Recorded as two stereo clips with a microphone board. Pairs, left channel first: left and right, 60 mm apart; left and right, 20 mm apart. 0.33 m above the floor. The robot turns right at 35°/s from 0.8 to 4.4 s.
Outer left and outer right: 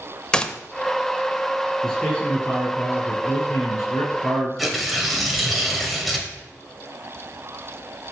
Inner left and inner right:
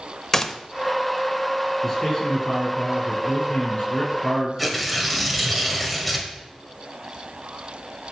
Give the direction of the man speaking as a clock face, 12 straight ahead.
12 o'clock.